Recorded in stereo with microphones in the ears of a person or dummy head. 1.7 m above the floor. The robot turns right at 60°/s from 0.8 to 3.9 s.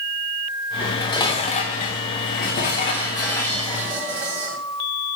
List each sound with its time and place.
0.8 s dishes clattering: 10° left, 1.0 m; by 4.6 s 165° right, 1.0 m